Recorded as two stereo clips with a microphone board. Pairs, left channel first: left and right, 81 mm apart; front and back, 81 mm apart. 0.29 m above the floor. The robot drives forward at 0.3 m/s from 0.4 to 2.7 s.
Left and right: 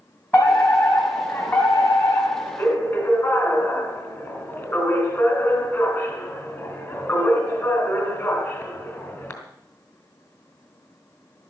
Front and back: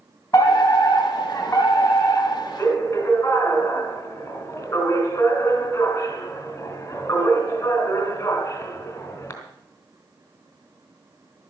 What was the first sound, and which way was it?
A fire alarm, 40° left.